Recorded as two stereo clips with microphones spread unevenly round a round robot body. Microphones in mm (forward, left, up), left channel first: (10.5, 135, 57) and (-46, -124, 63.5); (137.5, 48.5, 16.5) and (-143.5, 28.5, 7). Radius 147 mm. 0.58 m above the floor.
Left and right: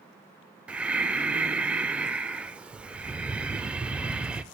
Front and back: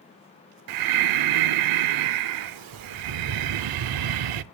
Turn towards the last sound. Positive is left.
turn(degrees=170)